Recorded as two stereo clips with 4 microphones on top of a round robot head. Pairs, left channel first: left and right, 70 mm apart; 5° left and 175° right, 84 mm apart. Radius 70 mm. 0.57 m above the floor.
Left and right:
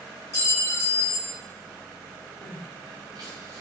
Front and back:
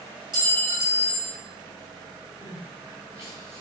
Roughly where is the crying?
Behind right.